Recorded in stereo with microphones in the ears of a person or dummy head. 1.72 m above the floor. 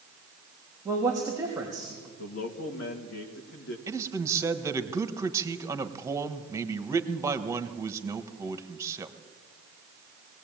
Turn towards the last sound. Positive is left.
turn(degrees=-15)  # may be behind; listen again after turning